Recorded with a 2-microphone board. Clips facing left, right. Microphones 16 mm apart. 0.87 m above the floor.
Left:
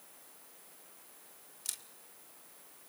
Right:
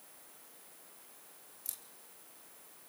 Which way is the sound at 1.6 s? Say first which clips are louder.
Left 7 dB; 45° left (ahead or behind).